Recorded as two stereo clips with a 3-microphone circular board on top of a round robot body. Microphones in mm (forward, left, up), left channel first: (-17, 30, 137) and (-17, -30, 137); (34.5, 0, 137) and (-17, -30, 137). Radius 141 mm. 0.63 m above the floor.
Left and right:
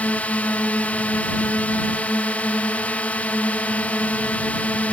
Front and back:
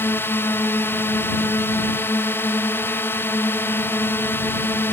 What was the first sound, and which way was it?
A drone, 40° left.